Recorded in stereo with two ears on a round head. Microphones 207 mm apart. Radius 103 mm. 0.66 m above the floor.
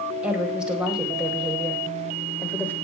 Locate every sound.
0.2 s a woman speaking: 5° right (ahead or behind), 4 m; by 2.7 s 10° left (ahead or behind), 3 m